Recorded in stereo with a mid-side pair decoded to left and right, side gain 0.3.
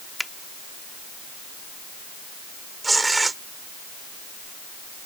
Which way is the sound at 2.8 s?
30° right.